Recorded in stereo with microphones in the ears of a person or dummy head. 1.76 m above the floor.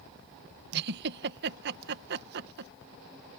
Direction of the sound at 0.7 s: 60° right (ahead or behind).